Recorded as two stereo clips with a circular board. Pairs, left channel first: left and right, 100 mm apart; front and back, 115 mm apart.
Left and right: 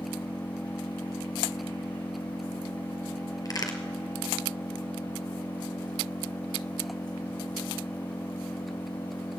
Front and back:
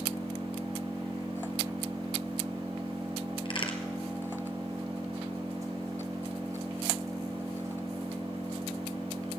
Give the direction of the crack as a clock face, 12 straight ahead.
11 o'clock.